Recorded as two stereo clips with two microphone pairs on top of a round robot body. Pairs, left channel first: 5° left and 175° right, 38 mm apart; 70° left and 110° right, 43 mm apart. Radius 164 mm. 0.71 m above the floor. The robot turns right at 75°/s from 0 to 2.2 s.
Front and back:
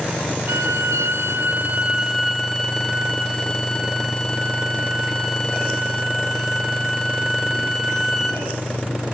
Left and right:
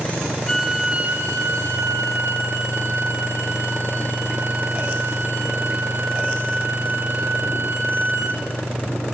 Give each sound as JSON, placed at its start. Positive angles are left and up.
{"t": 0.5, "sound": "a violin", "azimuth_deg": 150, "distance_m": 1.5}